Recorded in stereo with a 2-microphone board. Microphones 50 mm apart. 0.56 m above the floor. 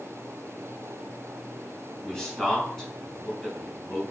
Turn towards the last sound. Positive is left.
turn(degrees=10)  # may be behind; listen again after turning